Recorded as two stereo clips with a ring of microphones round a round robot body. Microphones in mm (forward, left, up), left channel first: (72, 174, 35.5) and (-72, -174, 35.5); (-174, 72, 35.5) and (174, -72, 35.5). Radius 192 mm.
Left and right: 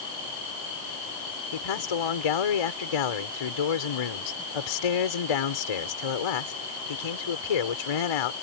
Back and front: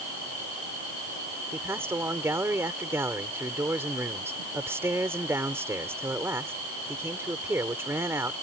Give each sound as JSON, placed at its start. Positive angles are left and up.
{"t": 1.5, "sound": "a man speaking", "azimuth_deg": 60}